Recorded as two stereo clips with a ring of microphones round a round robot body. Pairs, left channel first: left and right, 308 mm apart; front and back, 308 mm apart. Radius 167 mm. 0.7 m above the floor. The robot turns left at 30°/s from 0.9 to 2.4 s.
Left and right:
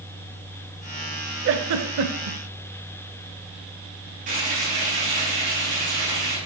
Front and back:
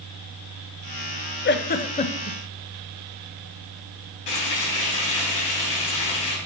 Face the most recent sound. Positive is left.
turn(degrees=-20)